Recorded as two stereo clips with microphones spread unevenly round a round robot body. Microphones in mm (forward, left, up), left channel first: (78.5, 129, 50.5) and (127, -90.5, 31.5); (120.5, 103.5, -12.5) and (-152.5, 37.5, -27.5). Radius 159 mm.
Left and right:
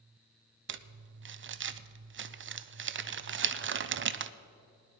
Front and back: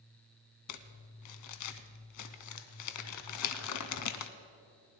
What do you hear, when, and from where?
0.7 s crumpling: 30° right, 0.6 m